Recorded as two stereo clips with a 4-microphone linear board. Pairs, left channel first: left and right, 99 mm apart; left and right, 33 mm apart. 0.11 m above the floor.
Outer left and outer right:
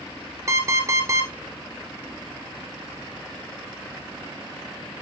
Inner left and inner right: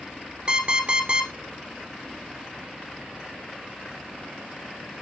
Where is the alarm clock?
35° right (ahead or behind), 0.9 m.